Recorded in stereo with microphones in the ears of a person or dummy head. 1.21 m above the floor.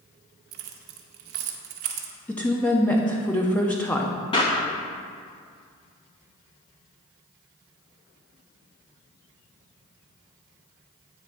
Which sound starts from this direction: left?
A clap, at 4.3 s.